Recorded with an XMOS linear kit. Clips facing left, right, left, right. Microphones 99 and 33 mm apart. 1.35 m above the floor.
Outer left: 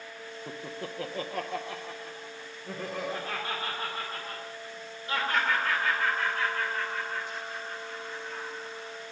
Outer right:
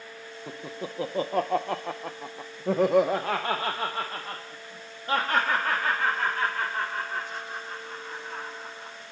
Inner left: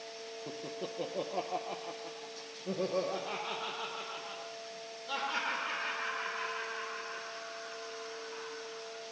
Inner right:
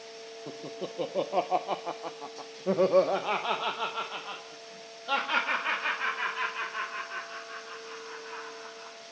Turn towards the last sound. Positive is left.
turn(degrees=-45)  # may be behind; listen again after turning